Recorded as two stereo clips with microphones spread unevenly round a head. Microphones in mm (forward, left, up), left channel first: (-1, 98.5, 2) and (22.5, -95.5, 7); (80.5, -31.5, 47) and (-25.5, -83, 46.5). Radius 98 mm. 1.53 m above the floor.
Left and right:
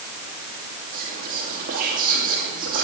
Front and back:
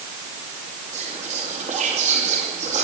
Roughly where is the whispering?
Behind right.